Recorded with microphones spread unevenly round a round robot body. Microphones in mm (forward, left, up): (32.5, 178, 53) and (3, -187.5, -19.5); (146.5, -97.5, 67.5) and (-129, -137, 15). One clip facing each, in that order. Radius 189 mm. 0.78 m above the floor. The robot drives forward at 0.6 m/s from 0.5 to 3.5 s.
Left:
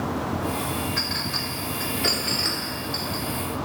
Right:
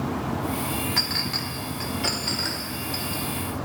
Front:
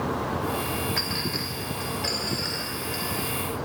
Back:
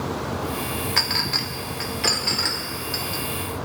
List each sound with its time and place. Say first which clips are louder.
1.0 s a clink: even, even; 155° right, 1.0 m; by 3.2 s 170° right, 2.5 m